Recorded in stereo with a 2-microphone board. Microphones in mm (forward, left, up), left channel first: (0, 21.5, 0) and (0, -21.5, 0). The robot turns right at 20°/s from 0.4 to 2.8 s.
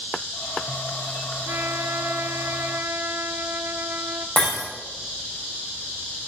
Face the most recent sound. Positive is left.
turn(degrees=40)  # may be behind; listen again after turning